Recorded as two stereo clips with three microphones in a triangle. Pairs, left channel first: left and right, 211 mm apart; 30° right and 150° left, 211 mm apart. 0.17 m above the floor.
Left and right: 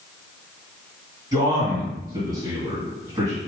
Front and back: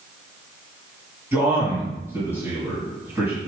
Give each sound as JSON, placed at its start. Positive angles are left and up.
{"t": 1.3, "sound": "a man speaking", "azimuth_deg": -145, "distance_m": 1.9}